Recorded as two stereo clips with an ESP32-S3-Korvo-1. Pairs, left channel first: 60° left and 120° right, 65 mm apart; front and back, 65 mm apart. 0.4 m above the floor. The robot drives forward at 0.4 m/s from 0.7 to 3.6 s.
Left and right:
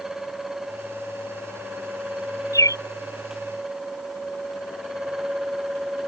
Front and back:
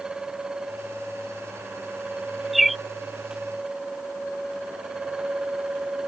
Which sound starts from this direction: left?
A bird, at 2.5 s.